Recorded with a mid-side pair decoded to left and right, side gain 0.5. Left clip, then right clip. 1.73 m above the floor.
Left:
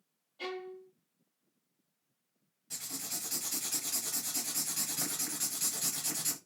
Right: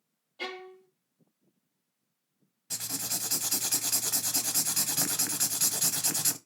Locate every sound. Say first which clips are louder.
0.4 s a violin: right 2 dB; 40° right, 0.8 m
2.7 s writing: right 6 dB; 50° right, 1.0 m